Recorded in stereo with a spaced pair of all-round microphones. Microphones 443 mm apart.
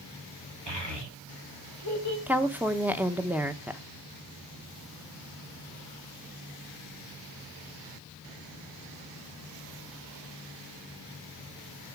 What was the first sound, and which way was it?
A child speaking, 65° right (ahead or behind).